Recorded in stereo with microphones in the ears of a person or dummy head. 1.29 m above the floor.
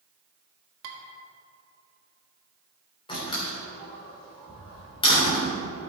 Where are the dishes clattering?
75° right (ahead or behind), 1.5 m.